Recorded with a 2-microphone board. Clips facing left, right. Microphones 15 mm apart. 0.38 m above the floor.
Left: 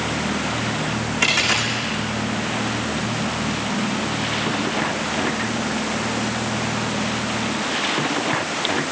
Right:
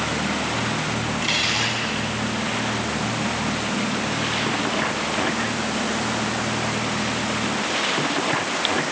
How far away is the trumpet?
No trumpet in this recording.